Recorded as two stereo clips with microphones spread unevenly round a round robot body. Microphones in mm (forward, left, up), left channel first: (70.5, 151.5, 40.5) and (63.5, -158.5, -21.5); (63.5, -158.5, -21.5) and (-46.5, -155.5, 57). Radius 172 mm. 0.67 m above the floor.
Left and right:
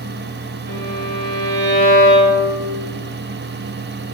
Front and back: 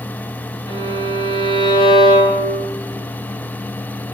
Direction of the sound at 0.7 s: 60° right.